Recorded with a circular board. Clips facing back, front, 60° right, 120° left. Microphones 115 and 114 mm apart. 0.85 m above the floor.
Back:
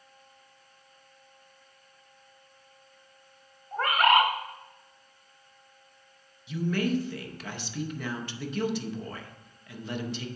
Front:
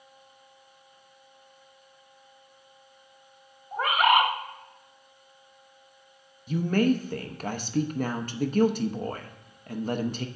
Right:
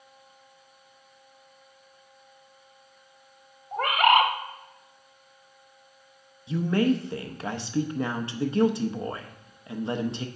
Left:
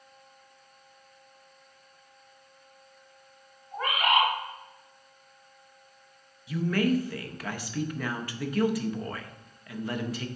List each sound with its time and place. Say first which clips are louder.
3.7 s a bird: even, right 5 dB; 85° right, 1.2 m
6.5 s a woman speaking: front 4 dB, right 2 dB; 5° right, 0.7 m